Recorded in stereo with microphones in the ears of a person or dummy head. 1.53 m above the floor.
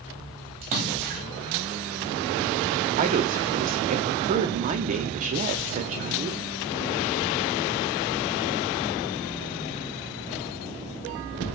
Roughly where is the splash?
Right.